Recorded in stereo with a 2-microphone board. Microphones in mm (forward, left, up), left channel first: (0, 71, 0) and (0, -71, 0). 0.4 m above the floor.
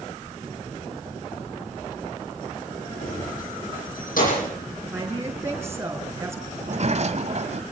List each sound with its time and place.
3.0 s keys jangling: 75° left (ahead or behind), 9.5 m; by 4.5 s 80° left, 11 m
4.9 s a woman speaking: 20° right (ahead or behind), 6 m
6.6 s a sliding door: 55° right (ahead or behind), 1.6 m